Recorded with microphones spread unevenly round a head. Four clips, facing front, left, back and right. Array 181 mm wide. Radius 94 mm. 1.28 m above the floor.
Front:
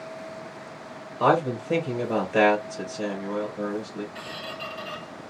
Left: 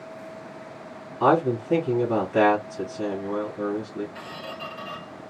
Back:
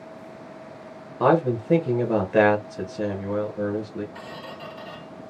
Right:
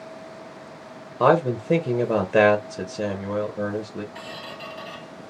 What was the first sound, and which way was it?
A man speaking, 110° right.